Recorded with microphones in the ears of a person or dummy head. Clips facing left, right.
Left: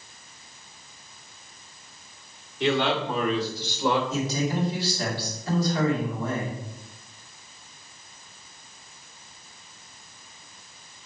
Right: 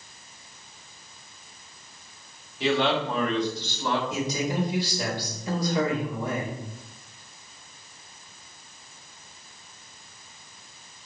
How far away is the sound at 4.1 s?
About 3.5 m.